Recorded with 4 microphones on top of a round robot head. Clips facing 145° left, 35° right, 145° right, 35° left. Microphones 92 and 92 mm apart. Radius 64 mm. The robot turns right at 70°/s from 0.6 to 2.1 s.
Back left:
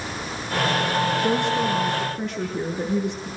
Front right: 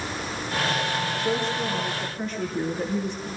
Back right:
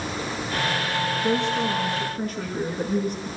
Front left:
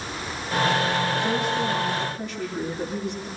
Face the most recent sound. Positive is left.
turn(degrees=170)